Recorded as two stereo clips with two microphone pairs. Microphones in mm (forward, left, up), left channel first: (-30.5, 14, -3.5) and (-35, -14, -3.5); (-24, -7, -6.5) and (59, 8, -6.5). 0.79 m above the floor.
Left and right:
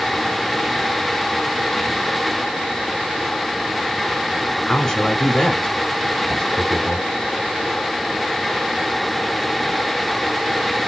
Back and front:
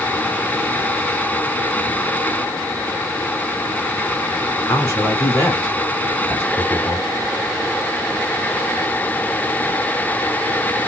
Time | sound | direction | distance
4.6 | a man speaking | 135° left | 1.9 m